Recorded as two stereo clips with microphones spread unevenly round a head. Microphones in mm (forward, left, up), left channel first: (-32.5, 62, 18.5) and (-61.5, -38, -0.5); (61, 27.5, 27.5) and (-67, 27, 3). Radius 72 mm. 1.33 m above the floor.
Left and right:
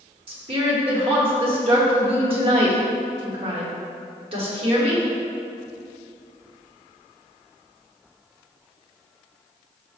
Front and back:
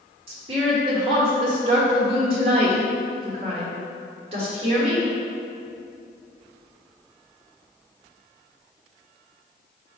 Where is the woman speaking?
135° right, 1.3 m.